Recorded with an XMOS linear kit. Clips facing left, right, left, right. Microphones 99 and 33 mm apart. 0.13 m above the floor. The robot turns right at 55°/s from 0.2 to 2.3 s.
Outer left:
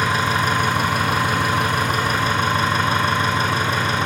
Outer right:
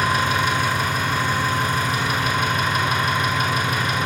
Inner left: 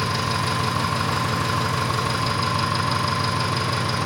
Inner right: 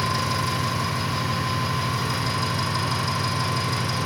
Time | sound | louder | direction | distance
0.0 | an engine running | outer left 1 dB, inner left 1 dB | 30° left | 1.7 m